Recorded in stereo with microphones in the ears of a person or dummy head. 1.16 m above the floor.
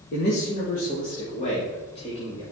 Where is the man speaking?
55° left (ahead or behind), 2 m; by 2.4 s 25° left (ahead or behind), 3.5 m.